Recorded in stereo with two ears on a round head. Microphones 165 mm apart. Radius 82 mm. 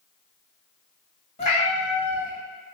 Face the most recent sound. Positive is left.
turn(degrees=35)  # may be behind; listen again after turning